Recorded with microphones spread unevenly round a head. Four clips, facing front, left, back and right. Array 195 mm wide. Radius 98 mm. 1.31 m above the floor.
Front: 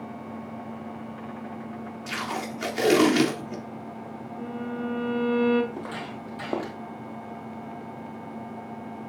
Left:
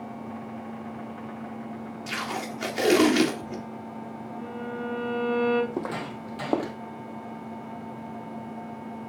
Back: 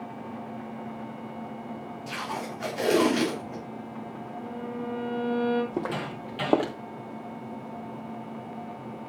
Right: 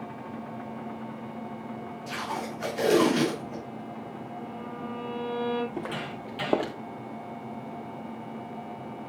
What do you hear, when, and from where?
2.1 s tape being pulled: 45° left, 4 m
4.4 s a violin: 30° left, 4 m
5.7 s footsteps: 140° left, 1.9 m; by 6.8 s 165° right, 1.5 m